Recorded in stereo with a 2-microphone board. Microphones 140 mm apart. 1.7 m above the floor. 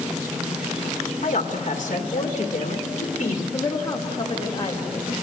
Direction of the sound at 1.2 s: 55° left (ahead or behind).